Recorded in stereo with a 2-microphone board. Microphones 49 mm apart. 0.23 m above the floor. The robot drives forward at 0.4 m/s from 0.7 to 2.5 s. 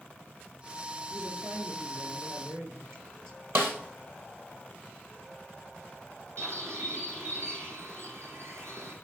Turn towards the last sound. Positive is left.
turn(degrees=-70)  # may be behind; listen again after turning